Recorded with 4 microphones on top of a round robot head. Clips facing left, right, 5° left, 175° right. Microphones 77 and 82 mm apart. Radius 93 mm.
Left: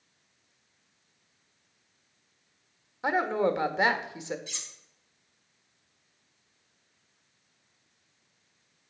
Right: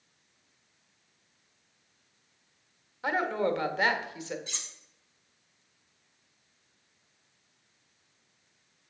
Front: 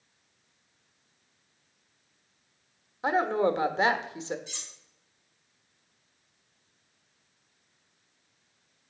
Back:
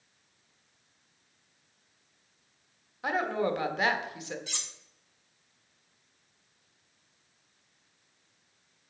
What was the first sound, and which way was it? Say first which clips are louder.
A woman speaking: left 2 dB, front 4 dB; 40° left.